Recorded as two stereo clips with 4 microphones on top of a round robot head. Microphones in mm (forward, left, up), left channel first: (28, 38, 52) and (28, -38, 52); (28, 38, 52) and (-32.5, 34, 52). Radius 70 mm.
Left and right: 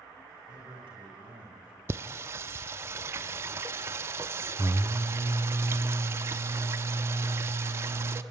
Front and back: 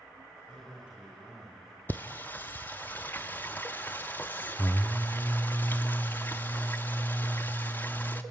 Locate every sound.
0.5 s a man speaking: 105° right, 6.5 m; by 1.8 s 90° right, 5.5 m
1.9 s singing: 60° right, 0.5 m